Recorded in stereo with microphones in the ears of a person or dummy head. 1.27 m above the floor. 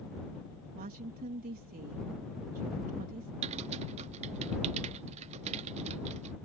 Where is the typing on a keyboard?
35° right (ahead or behind).